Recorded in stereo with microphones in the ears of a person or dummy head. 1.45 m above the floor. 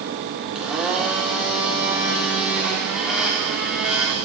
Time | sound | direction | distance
0.6 | a blender | 5° right (ahead or behind) | 0.7 m